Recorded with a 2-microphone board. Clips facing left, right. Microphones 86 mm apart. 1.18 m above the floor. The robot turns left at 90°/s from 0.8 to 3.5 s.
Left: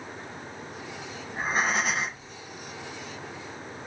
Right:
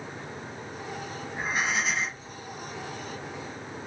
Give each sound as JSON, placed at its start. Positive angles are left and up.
{"t": 1.3, "sound": "breathing", "azimuth_deg": 160, "distance_m": 0.7}